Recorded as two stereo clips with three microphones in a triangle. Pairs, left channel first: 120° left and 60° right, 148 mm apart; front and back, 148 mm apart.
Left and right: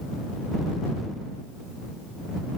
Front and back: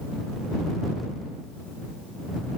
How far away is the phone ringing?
No phone ringing in this recording.